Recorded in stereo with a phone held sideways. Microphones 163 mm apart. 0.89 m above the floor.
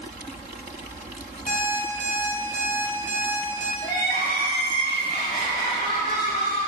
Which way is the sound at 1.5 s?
60° left (ahead or behind).